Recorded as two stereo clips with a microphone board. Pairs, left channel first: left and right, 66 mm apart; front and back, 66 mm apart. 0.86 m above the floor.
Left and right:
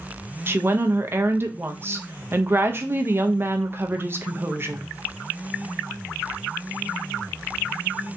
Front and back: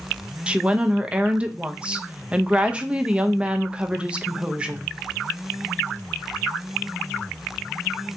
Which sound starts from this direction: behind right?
A woman speaking, at 0.5 s.